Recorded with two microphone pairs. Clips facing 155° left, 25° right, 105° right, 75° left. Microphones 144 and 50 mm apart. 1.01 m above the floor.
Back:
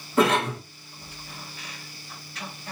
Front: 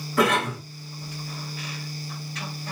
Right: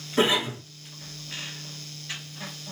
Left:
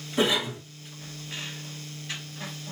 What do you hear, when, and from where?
0.2 s a cough: 155° right, 1.1 m